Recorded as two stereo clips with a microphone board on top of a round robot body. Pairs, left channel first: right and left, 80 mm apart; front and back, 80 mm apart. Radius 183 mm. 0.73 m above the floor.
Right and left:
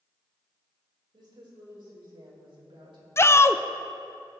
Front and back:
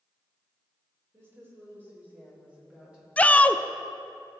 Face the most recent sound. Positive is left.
turn(degrees=-60)